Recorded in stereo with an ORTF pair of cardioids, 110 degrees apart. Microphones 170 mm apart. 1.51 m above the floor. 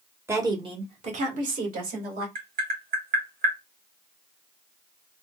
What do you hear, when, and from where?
0.3 s a woman speaking: 15° right, 0.9 m; by 2.2 s 60° right, 2 m
2.4 s tapping: 60° right, 1.6 m